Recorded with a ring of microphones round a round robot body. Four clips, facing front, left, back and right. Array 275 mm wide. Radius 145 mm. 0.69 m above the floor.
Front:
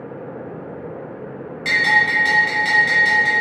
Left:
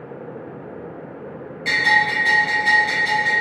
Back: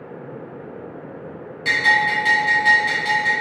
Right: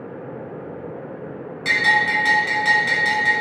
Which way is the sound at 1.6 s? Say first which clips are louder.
Left 1 dB, even; 80° right.